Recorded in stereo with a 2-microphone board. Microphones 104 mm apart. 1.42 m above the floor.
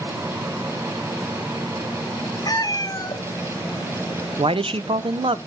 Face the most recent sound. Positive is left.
turn(degrees=-60)  # may be behind; listen again after turning